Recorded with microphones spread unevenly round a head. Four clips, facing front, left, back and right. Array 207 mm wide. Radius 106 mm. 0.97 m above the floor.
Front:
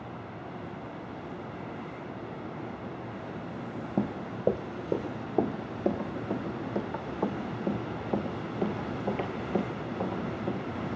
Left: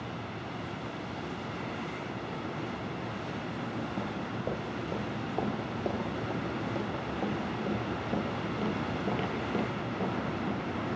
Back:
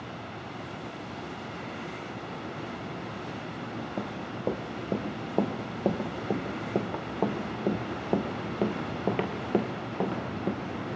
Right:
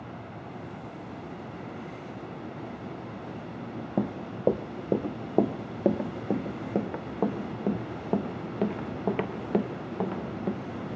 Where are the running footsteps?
55° right, 1.6 m; by 10.6 s 145° right, 4 m.